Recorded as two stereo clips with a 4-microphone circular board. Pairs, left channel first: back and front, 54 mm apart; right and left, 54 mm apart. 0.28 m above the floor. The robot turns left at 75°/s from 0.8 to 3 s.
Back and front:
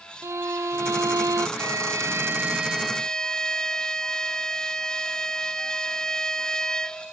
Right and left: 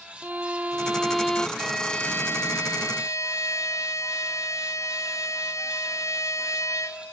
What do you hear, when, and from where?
0.2 s a violin: 30° left; by 1.5 s 20° right
1.6 s a violin: 5° left; by 7.1 s 100° right